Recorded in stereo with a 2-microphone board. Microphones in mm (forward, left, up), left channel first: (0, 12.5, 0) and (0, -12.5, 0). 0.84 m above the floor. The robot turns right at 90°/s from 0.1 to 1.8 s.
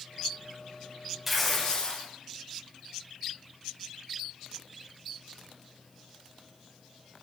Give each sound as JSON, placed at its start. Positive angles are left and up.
{"t": 1.3, "sound": "tearing paper", "azimuth_deg": -10, "distance_m": 1.3}